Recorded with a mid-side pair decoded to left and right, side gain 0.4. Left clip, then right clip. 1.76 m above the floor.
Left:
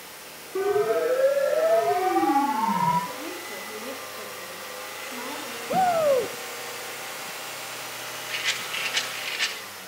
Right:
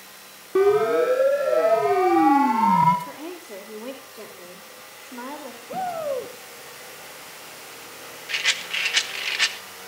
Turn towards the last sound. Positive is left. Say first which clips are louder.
# right 5 dB
turn(degrees=-55)